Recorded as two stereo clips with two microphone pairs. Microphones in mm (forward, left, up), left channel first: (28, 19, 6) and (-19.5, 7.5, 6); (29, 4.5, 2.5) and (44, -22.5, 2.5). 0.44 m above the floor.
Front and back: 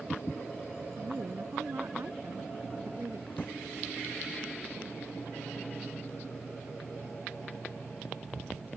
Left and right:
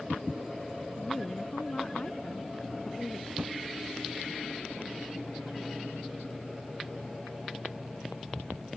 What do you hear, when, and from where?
1.0 s a woman speaking: 170° left
3.3 s a drawer: 45° right